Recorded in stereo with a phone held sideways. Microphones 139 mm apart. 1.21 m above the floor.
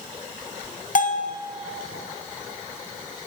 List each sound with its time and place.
0.9 s a bell: 70° left (ahead or behind), 0.8 m